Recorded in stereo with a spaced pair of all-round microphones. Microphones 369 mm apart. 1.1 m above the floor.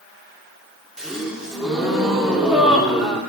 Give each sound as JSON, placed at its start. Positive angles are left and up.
{"t": 1.0, "sound": "a gasp", "side_deg": 0, "distance_m": 3.0}